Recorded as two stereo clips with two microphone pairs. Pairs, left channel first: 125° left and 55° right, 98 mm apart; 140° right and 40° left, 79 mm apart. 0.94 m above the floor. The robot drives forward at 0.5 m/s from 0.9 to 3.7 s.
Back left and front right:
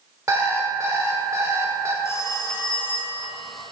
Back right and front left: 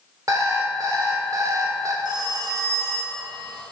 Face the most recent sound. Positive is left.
turn(degrees=120)